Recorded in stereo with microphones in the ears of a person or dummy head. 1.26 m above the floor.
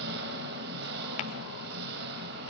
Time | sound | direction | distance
0.0 | an engine running | 65° right (ahead or behind) | 4.5 m
1.2 | tapping | 35° left (ahead or behind) | 1.6 m